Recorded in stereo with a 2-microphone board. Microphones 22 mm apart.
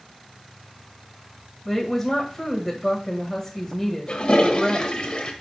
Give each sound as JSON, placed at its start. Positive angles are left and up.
{"t": 1.6, "sound": "a woman speaking", "side_deg": 5, "distance_m": 1.6}
{"t": 4.1, "sound": "a toilet flushing", "side_deg": 45, "distance_m": 1.4}